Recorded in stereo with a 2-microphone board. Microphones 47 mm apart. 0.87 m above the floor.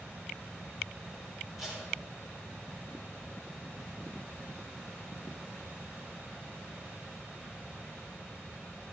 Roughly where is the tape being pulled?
Centre.